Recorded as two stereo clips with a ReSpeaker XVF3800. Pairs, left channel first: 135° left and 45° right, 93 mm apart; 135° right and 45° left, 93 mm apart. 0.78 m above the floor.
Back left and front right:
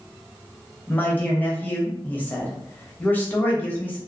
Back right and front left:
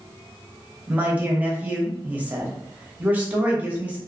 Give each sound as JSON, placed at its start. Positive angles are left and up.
{"t": 0.9, "sound": "a man speaking", "azimuth_deg": 90, "distance_m": 0.9}